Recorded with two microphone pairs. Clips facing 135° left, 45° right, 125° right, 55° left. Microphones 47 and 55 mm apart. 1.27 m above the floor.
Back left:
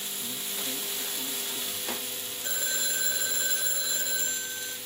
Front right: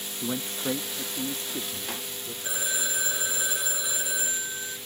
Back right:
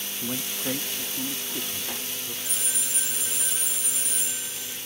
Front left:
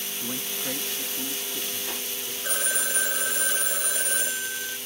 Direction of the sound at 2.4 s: 30° left.